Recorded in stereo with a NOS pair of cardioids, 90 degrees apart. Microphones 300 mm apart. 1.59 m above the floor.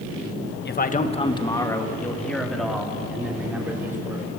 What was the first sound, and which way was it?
A man speaking, 35° left.